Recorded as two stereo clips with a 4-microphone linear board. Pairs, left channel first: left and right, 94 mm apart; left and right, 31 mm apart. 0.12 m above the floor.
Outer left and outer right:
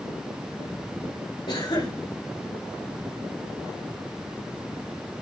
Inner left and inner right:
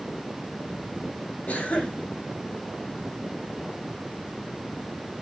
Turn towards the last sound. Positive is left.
turn(degrees=60)  # may be behind; listen again after turning